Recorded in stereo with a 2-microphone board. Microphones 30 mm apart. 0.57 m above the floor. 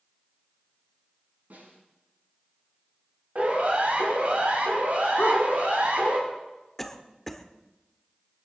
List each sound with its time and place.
1.5 s a snare drum: 75° right (ahead or behind), 7.5 m
3.4 s a siren: 45° right (ahead or behind), 5 m; by 6.2 s 60° right (ahead or behind), 6.5 m
5.2 s a dog barking: 75° left (ahead or behind), 3 m
6.8 s a cough: 5° left (ahead or behind), 1.3 m